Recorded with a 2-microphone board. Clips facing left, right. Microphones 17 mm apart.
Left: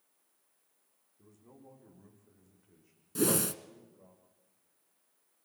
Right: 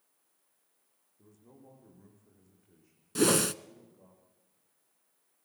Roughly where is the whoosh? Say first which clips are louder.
Right 4 dB; right.